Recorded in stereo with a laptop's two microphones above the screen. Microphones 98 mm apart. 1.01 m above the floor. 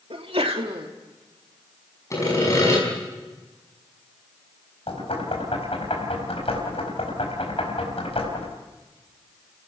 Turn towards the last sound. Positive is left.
turn(degrees=90)